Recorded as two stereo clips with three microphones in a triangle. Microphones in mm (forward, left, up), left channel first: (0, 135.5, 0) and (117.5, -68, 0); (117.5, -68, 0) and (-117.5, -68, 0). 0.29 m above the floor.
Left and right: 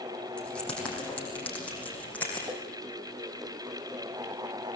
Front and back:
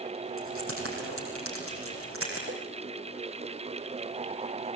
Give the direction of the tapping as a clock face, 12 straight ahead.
4 o'clock.